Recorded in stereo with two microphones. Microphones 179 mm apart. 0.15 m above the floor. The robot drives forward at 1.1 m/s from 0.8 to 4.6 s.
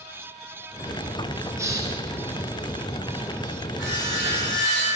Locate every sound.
1.6 s a hiss: 15° right (ahead or behind), 2 m; by 1.9 s 20° right (ahead or behind), 1.8 m
3.8 s sawing: 75° left (ahead or behind), 4.5 m; by 4.9 s 85° left, 4.5 m